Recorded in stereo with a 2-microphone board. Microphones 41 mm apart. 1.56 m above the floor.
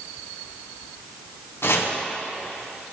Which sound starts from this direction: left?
Chopping, at 1.6 s.